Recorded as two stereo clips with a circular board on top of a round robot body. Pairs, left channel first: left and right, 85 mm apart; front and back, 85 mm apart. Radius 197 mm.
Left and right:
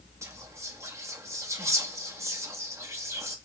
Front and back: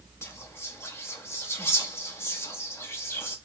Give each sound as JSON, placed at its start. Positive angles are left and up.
{"t": 0.2, "sound": "whispering", "azimuth_deg": -50, "distance_m": 0.9}